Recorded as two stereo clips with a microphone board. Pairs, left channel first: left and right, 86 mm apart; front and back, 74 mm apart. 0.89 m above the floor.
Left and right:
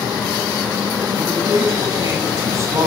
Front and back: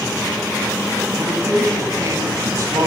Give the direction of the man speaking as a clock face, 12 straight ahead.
5 o'clock.